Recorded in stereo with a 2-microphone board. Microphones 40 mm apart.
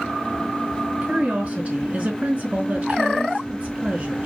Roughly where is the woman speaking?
Right.